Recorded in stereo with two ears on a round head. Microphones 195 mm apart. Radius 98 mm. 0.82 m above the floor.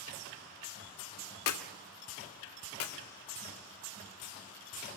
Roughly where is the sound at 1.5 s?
Left.